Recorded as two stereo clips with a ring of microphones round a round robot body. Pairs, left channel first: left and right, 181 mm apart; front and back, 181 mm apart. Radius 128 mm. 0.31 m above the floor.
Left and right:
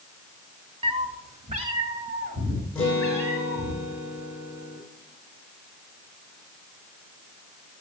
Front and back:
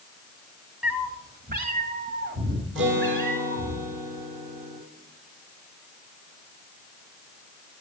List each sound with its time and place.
0.8 s a cat meowing: 95° right, 0.6 m; by 3.8 s 155° right, 2.5 m
2.8 s a guitar: 175° left, 3 m